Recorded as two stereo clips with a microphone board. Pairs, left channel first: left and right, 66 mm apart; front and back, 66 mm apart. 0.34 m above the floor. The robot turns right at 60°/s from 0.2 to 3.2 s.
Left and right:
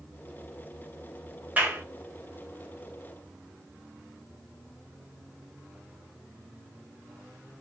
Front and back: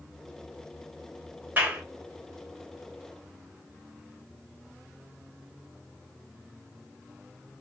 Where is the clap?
140° right, 0.9 m; by 1.8 s 125° right, 0.9 m.